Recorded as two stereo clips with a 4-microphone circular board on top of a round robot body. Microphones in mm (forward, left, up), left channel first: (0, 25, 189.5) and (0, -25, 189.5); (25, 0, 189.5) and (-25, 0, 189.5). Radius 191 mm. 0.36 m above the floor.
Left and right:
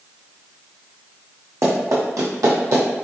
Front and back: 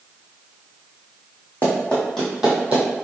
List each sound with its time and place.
1.6 s running footsteps: 65° right, 1.1 m; by 2.8 s 125° right, 0.8 m